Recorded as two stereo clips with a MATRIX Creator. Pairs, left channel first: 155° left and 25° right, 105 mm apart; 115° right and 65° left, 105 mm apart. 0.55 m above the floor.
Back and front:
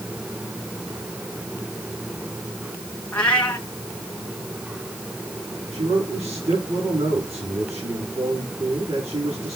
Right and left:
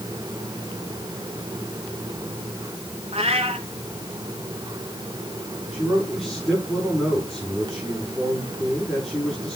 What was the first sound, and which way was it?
A cat meowing, 80° left.